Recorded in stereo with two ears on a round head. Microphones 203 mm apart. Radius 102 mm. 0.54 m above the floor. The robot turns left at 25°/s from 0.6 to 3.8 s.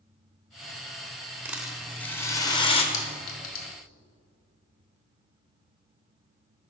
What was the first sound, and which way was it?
A rattle, 170° right.